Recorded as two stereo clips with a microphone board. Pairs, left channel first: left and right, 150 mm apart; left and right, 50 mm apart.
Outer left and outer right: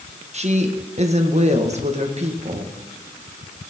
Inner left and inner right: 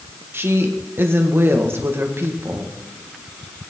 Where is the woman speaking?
50° right (ahead or behind), 1.7 m.